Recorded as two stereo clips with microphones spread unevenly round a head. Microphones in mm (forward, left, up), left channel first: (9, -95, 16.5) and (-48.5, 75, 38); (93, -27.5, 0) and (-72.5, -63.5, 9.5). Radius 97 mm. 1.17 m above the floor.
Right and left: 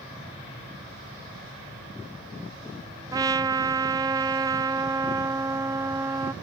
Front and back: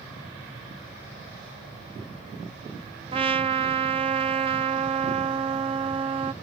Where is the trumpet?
160° left.